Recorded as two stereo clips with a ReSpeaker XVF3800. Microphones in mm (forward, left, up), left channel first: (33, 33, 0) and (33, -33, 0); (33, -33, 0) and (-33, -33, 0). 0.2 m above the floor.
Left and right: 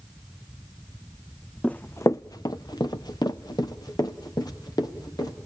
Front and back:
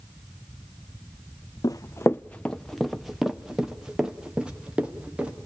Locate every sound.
1.6 s running footsteps: 15° left, 0.6 m; by 5.3 s 105° left, 3.5 m